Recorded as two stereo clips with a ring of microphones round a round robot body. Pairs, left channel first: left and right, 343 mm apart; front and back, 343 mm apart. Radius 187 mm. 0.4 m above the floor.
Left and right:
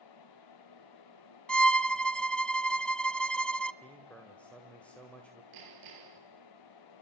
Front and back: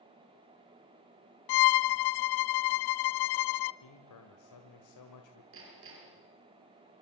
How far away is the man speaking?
About 2.5 m.